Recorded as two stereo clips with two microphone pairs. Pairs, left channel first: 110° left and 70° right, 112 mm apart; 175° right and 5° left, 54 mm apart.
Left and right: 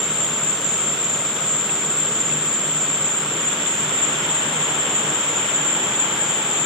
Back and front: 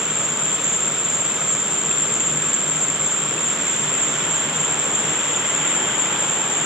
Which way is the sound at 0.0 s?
80° right.